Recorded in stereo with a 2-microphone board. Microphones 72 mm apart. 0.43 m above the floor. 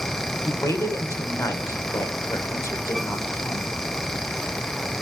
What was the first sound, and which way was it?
A man speaking, 45° left (ahead or behind).